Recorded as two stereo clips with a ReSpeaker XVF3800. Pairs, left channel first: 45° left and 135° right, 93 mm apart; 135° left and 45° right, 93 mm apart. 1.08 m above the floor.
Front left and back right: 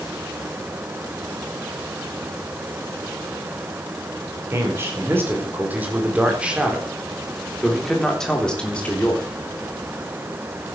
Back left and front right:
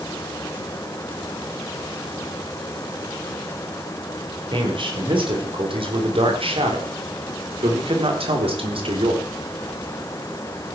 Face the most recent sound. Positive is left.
turn(degrees=-30)